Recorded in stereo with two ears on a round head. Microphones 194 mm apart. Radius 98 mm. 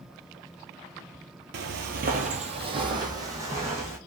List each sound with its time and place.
1.5 s footsteps: 50° right (ahead or behind), 0.5 m; by 4.0 s 10° right (ahead or behind), 1.4 m